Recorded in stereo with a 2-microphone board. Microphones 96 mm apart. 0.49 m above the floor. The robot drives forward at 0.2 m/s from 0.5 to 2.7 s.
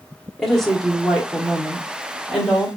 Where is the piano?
No piano in this recording.